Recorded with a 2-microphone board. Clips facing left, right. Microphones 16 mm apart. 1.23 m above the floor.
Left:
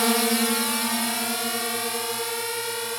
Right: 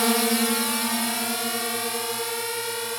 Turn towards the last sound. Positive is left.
turn(degrees=0)  # may be behind; listen again after turning